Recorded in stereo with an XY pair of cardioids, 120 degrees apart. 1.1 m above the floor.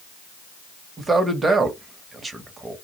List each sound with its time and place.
1.0 s a man speaking: 25° right, 0.8 m